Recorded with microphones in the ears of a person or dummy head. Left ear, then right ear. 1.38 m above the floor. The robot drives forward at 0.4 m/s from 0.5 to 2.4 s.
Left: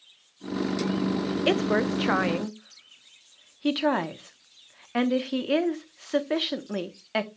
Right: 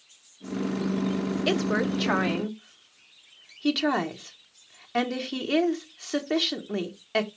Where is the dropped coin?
No dropped coin in this recording.